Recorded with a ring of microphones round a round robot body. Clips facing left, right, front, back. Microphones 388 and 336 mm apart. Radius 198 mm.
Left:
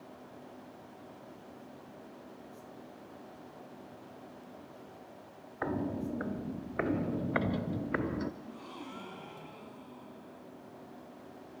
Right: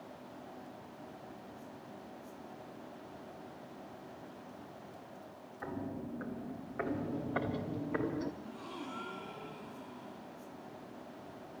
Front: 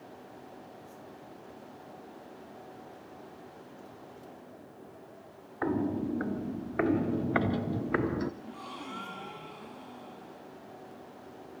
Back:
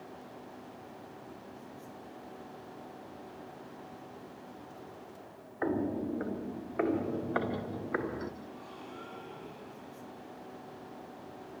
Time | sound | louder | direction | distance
5.6 | footsteps | left 7 dB, front 2 dB | 70° left | 2 m
8.4 | a gasp | right 1 dB, front 3 dB | straight ahead | 5 m